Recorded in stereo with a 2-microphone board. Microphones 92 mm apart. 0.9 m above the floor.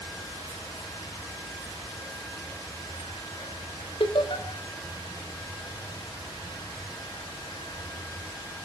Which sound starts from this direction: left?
Laughter, at 4.0 s.